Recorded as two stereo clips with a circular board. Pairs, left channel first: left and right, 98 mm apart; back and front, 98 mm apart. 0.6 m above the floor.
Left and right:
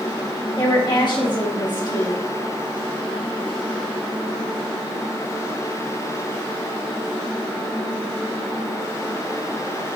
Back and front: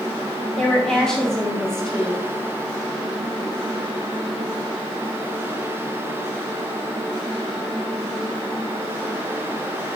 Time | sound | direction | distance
0.6 | a woman speaking | 95° left | 1.3 m